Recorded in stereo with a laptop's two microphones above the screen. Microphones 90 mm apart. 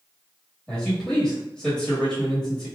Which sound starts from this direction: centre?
A man speaking, at 0.7 s.